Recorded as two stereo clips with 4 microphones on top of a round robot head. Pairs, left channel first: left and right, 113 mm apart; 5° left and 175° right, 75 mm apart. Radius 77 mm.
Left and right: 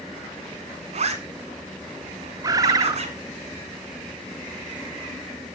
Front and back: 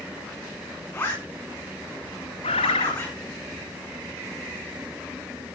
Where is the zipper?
65° right, 4 m.